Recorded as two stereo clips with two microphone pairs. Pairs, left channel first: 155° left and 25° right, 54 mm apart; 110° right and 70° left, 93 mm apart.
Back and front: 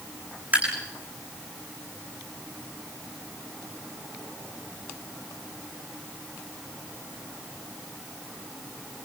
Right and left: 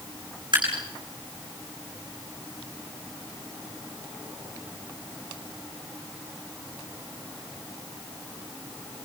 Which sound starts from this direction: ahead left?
Dripping, at 0.5 s.